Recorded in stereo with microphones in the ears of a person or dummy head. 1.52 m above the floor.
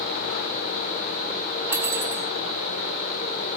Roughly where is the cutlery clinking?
Centre.